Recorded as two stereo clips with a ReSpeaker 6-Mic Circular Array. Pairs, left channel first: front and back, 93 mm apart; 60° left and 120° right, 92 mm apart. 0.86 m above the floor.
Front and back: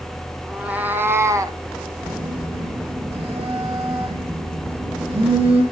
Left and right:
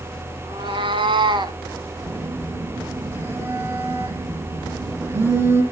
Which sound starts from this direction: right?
A cat meowing, at 0.4 s.